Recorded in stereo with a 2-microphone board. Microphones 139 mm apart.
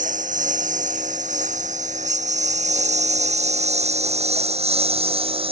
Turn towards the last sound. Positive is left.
turn(degrees=-40)  # may be behind; listen again after turning